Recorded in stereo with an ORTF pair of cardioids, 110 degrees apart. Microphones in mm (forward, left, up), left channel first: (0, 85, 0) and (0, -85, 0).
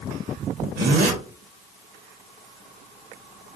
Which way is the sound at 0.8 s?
70° right.